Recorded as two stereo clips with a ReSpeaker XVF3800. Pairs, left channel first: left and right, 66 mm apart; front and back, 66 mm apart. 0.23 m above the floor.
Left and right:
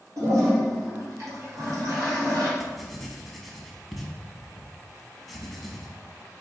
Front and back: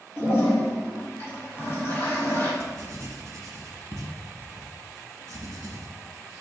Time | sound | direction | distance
0.2 | a toilet flushing | 50° right | 1.9 m
2.6 | writing | straight behind | 0.7 m